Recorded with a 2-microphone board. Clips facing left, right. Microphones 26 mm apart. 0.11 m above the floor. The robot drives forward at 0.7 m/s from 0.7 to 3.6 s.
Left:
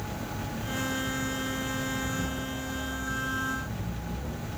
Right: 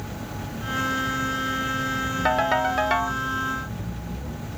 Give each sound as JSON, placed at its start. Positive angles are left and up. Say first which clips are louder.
{"t": 2.2, "sound": "a ringtone", "louder": "right 13 dB", "side_deg": -70}